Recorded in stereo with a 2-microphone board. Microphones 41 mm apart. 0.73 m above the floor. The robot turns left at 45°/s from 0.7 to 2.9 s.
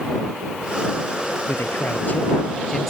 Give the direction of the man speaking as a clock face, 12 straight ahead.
10 o'clock.